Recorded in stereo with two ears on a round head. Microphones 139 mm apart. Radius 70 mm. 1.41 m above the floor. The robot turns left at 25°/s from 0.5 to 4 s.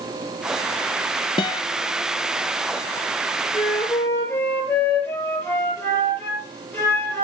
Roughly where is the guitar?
Left.